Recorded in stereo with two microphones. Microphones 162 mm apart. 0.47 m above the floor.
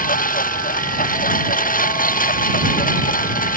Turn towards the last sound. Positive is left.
turn(degrees=65)  # may be behind; listen again after turning